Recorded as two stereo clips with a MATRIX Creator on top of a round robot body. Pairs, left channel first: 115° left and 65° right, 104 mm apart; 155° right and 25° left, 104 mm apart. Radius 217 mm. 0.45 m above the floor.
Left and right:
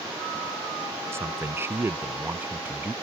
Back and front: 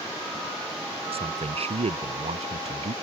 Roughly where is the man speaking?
Ahead.